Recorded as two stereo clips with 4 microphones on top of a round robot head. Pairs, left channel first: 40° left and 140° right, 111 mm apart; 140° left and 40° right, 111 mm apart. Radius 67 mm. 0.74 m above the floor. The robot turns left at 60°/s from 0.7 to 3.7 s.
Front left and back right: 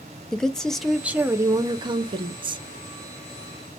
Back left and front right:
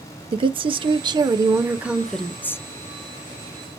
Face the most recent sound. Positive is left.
turn(degrees=135)